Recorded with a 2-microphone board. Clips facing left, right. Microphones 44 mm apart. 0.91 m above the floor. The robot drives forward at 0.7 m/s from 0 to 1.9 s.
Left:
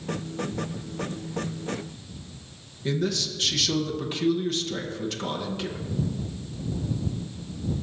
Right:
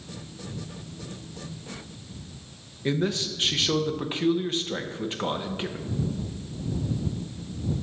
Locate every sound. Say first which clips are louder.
2.9 s a man speaking: right 1 dB; 25° right (ahead or behind), 0.8 m